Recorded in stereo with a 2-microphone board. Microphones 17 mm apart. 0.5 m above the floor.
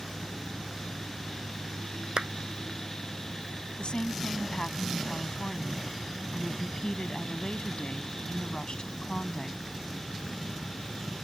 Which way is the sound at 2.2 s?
65° right (ahead or behind).